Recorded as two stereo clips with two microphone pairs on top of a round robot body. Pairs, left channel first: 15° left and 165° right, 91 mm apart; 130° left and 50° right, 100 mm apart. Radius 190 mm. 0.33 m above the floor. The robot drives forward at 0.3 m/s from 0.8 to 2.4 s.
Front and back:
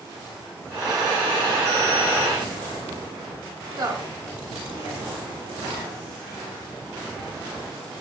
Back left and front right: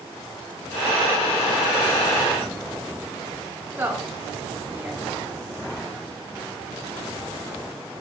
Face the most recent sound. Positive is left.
turn(degrees=-120)